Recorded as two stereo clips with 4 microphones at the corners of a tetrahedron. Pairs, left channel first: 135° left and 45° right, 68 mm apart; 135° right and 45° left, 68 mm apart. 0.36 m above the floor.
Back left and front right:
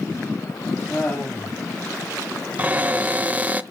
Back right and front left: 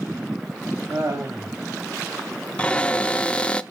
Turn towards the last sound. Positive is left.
turn(degrees=-80)